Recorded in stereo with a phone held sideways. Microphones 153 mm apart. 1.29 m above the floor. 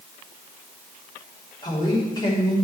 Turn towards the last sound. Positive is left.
turn(degrees=25)  # may be behind; listen again after turning